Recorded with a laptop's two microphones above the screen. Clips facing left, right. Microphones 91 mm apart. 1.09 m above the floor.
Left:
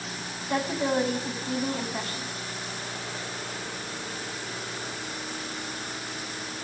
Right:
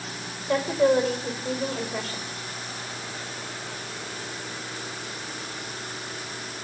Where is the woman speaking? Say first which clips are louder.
Right 6 dB; 80° right, 5.5 m.